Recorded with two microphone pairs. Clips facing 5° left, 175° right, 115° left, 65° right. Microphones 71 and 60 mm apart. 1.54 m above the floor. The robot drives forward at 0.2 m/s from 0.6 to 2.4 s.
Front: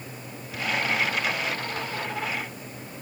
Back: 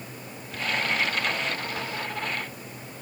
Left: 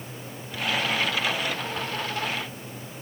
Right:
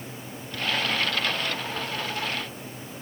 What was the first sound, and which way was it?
Only background noise.